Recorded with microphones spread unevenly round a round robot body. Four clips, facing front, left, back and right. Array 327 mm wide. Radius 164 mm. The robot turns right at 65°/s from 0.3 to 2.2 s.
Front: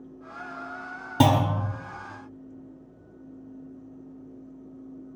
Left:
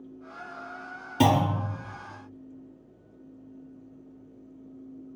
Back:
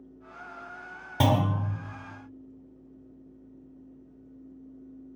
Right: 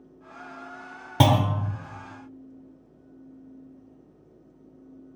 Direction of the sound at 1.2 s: 65° right.